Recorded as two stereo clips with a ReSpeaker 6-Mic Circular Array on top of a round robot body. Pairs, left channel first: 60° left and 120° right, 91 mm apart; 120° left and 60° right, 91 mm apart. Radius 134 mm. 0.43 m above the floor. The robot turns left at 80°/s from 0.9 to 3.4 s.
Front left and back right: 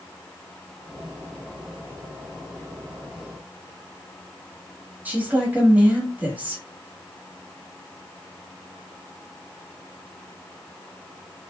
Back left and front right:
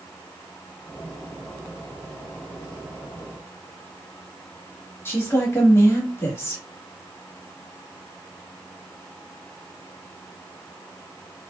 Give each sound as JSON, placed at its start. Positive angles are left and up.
{"t": 5.0, "sound": "a woman speaking", "azimuth_deg": 175, "distance_m": 1.3}